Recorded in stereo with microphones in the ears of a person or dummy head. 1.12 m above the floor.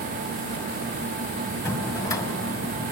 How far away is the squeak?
No squeak in this recording.